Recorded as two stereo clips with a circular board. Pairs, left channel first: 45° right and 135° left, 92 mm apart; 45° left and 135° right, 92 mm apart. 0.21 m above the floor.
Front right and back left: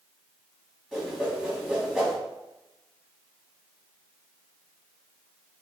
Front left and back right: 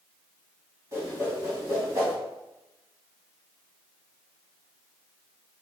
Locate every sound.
0.9 s a whoosh: 140° right, 1.6 m